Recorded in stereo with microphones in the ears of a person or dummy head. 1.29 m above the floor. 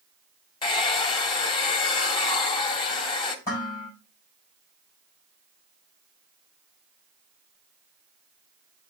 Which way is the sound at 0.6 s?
25° left (ahead or behind).